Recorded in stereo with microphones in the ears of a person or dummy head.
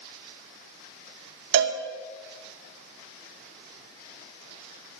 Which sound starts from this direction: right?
A cowbell, at 1.5 s.